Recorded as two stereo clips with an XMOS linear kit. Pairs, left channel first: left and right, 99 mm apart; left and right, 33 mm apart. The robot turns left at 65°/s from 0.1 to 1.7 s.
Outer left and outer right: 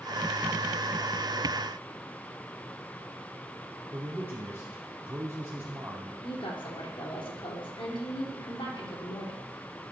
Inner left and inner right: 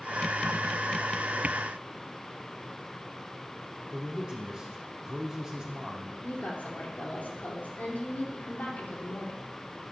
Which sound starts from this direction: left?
A woman speaking, at 6.2 s.